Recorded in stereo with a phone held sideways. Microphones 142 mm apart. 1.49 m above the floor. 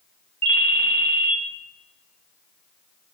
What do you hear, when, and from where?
0.4 s a ringtone: 10° left (ahead or behind), 1.1 m